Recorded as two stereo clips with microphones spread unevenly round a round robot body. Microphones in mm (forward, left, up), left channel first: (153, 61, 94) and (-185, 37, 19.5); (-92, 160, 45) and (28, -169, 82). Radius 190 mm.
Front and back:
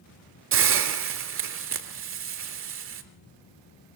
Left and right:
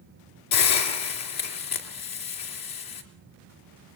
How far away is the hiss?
About 3 m.